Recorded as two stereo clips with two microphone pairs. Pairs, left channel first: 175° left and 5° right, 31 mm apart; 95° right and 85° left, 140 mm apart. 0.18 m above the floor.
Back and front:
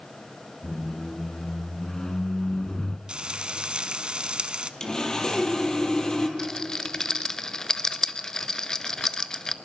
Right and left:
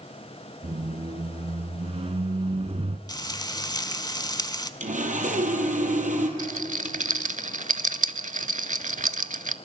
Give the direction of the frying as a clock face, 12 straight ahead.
2 o'clock.